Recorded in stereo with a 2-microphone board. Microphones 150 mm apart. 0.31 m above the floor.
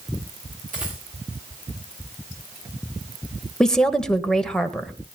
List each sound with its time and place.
0.7 s a dropped coin: 60° right (ahead or behind), 6.5 m
3.6 s a woman speaking: 5° left (ahead or behind), 1.3 m